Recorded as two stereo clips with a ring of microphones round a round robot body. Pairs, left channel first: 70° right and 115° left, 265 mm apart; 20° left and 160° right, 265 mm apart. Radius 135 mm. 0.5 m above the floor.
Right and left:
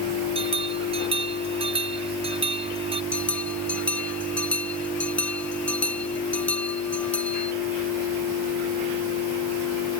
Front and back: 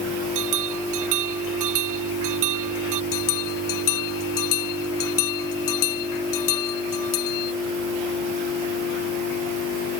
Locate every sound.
0.3 s a bell: 175° right
3.1 s a bell: 20° left